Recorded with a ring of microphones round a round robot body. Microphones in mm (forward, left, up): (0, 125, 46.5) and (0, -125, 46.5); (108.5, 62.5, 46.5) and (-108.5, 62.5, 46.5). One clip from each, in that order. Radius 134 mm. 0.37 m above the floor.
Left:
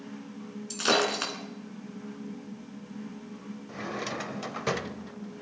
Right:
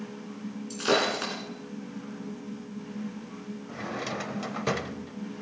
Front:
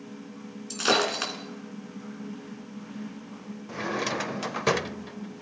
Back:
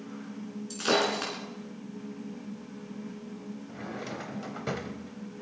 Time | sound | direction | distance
0.7 | breaking glass | 35° left | 3 m
3.7 | a drawer | 10° left | 0.5 m